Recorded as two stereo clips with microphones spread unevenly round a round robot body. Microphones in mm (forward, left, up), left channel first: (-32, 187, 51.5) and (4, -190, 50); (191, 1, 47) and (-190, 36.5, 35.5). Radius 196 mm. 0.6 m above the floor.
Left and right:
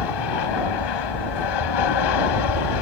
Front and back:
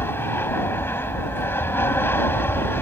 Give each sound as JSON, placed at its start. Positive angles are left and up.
{"t": 0.0, "sound": "an aircraft", "azimuth_deg": 80}